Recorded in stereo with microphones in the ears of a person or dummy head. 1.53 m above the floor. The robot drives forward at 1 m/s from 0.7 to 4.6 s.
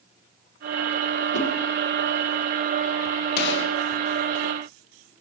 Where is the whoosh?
45° left (ahead or behind), 1.5 m.